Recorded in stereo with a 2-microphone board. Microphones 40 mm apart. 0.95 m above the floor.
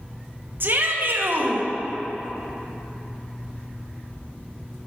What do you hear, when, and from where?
0.6 s a shout: 60° right (ahead or behind), 1.0 m